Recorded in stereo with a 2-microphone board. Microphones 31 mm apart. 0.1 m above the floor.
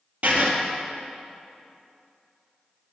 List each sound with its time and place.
0.2 s writing: 55° right (ahead or behind), 1.7 m